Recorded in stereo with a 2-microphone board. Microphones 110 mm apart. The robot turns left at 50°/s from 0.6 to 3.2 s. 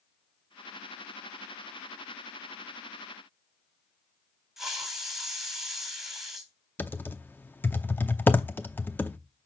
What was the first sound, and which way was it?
A hiss, centre (ahead or behind).